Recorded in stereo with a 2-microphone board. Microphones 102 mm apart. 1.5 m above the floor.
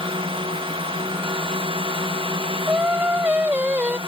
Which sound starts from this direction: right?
A drone, at 0.0 s.